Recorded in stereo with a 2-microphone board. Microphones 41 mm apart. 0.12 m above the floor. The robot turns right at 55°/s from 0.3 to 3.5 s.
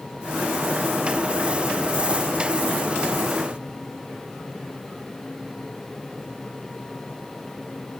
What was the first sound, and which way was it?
Only background noise.